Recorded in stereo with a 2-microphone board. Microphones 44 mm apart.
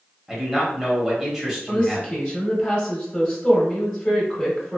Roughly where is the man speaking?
Centre.